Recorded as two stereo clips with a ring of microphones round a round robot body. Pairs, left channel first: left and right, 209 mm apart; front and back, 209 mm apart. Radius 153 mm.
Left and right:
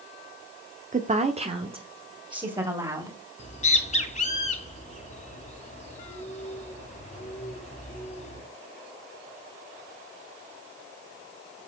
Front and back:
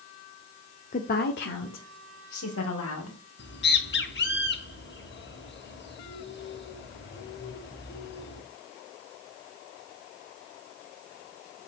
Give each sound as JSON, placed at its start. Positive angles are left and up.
{"t": 0.9, "sound": "a woman speaking", "azimuth_deg": -45, "distance_m": 1.0}
{"t": 3.4, "sound": "a bird", "azimuth_deg": 35, "distance_m": 3.0}